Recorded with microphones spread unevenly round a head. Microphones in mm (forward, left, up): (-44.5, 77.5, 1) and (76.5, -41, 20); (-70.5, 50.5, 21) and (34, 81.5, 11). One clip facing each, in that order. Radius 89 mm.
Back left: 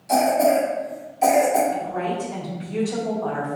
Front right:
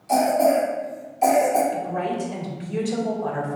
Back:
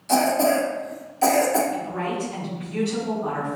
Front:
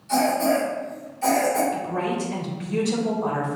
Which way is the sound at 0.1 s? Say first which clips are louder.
Even, back 1 dB; 140° right.